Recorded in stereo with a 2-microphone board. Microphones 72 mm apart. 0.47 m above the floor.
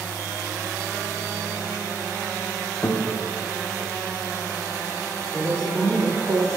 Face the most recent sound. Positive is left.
turn(degrees=-45)  # may be behind; listen again after turning